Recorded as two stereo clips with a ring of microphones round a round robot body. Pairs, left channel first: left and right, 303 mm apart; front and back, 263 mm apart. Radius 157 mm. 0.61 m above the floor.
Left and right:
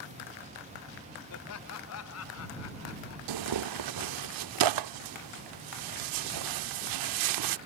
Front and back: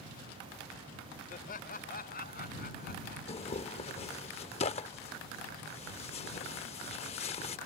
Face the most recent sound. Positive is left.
turn(degrees=-70)